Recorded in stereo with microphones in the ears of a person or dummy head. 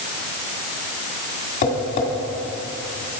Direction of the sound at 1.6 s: 45° left (ahead or behind).